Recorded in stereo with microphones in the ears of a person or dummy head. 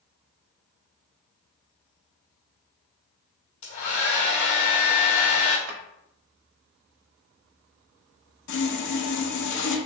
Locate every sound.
3.6 s a hair dryer: 45° left (ahead or behind), 1.2 m
5.7 s a drawer: 70° right (ahead or behind), 1.1 m
8.5 s sawing: 70° left (ahead or behind), 0.9 m